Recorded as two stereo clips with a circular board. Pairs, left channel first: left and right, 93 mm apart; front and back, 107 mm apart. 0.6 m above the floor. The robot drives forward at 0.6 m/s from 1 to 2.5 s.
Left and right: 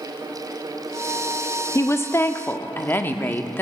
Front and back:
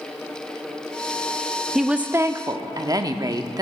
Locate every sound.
1.8 s a woman speaking: 90° left, 0.6 m; by 3.6 s 145° left, 0.8 m